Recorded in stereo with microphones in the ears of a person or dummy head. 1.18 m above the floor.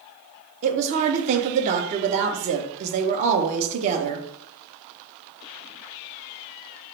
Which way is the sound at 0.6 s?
40° right (ahead or behind).